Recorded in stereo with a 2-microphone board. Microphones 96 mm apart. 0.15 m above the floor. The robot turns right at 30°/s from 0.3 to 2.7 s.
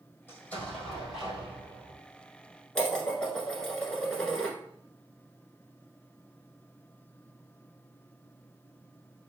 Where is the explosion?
160° left, 1.7 m; by 2.0 s 150° right, 1.7 m.